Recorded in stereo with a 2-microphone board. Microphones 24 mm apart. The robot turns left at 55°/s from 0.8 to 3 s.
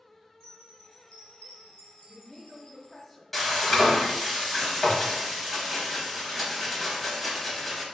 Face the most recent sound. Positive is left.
turn(degrees=5)  # may be behind; listen again after turning